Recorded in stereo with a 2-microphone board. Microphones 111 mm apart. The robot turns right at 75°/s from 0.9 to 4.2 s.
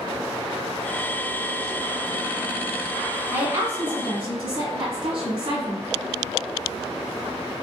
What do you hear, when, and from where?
3.3 s a woman speaking: 155° right, 1.6 m; by 5.8 s 90° right, 1.6 m